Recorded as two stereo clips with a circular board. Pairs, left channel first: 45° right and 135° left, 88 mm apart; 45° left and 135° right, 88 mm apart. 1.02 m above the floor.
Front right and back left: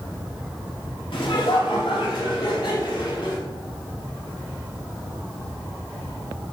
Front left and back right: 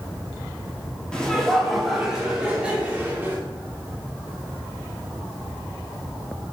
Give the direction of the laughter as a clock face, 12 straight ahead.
1 o'clock.